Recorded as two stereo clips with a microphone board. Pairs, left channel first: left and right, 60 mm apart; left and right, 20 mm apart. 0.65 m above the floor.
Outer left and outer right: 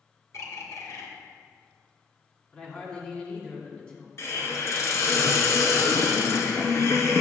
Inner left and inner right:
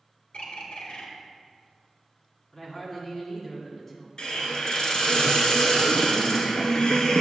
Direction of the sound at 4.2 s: 50° left (ahead or behind).